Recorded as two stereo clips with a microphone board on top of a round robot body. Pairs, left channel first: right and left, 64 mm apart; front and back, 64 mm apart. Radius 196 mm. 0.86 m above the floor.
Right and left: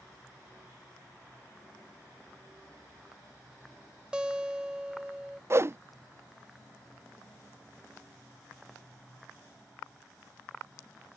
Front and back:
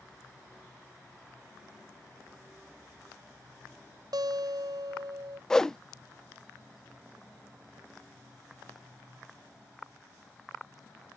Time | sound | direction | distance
4.1 | a guitar | 170° left | ?
5.5 | a whoosh | 75° left | ?